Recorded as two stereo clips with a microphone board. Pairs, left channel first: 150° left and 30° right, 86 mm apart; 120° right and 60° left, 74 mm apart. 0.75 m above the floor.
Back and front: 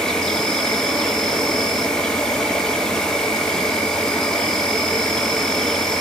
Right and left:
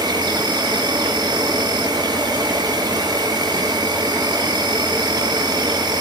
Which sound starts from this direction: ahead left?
An insect, at 0.0 s.